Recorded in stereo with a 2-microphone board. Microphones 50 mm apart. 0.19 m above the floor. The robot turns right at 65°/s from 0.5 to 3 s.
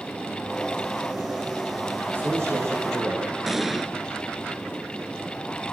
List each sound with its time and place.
2.1 s a man speaking: 140° right, 9.5 m; by 3.3 s 80° right, 9.5 m
3.5 s an explosion: 5° right (ahead or behind), 1.2 m